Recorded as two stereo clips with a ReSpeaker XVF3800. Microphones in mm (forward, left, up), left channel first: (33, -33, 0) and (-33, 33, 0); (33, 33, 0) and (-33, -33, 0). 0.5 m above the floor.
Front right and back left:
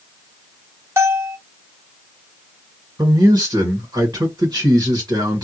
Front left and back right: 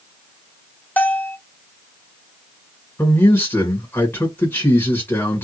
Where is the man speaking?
105° left, 1.9 m.